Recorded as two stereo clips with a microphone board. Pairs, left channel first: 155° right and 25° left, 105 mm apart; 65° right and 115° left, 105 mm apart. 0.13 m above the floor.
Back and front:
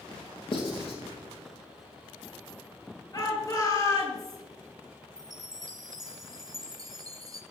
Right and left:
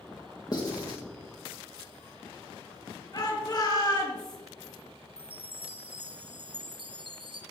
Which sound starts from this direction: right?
A shout, at 3.1 s.